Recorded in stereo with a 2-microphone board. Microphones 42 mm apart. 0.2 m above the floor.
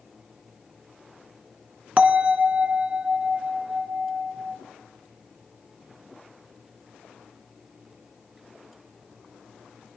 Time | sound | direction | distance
2.0 | a bell | 40° right (ahead or behind) | 0.7 m